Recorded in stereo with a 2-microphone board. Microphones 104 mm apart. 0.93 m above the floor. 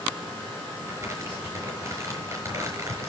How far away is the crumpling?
About 5.5 m.